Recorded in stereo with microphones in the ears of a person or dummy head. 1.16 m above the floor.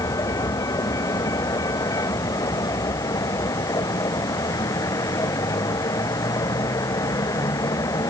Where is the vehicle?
20° left (ahead or behind).